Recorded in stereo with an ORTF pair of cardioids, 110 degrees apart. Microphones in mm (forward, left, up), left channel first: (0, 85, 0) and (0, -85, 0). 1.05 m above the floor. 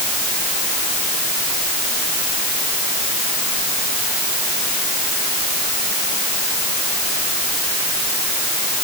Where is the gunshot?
I don't hear a gunshot.